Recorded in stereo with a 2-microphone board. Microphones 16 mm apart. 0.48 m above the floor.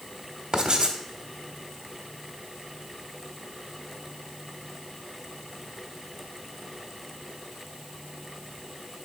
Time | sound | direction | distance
0.5 | writing | 35° right (ahead or behind) | 1.0 m